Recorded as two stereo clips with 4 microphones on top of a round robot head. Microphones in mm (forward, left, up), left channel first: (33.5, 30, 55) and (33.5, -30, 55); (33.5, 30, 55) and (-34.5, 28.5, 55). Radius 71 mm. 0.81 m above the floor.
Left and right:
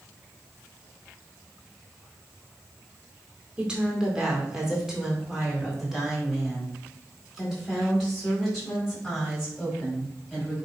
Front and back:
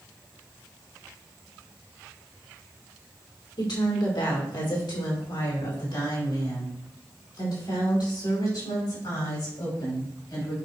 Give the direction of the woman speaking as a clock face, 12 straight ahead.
1 o'clock.